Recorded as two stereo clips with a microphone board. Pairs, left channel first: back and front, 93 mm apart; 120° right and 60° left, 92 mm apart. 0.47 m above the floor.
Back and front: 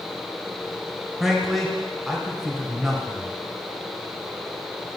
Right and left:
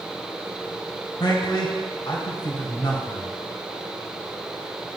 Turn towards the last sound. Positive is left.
turn(degrees=-90)